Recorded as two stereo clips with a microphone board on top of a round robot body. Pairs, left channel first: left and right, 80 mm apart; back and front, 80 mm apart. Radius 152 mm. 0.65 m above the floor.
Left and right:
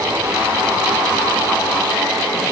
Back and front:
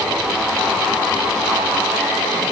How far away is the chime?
I don't hear a chime.